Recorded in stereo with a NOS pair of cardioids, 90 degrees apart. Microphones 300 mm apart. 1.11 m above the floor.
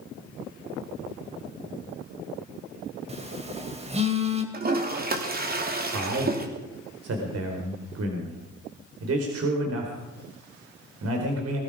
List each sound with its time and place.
3.1 s a phone buzzing: 20° right, 3.5 m
4.5 s a toilet flushing: 30° right, 3 m
5.9 s a man speaking: 55° right, 4.5 m